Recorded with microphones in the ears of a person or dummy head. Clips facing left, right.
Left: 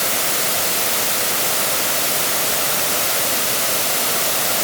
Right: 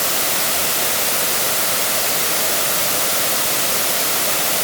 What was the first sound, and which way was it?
Only background noise.